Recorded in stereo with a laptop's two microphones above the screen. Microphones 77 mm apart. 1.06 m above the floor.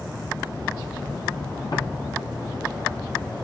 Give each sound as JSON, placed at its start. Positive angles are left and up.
{"t": 1.7, "sound": "footsteps", "side_deg": 55, "distance_m": 1.9}